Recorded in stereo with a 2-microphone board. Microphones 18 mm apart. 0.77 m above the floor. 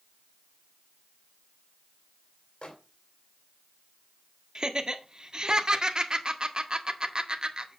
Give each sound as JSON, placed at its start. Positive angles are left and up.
{"t": 2.6, "sound": "a microwave", "side_deg": 60, "distance_m": 2.5}
{"t": 4.5, "sound": "laughter", "side_deg": -40, "distance_m": 1.6}